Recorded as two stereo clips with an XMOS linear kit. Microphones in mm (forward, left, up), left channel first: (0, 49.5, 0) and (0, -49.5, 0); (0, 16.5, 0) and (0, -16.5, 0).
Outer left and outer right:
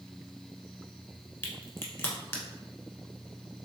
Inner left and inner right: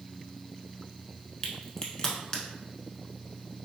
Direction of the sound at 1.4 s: 25° left (ahead or behind).